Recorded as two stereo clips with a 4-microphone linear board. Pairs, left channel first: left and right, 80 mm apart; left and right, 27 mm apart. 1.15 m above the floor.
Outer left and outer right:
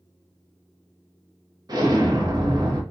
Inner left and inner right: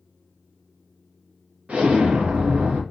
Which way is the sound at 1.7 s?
55° right (ahead or behind).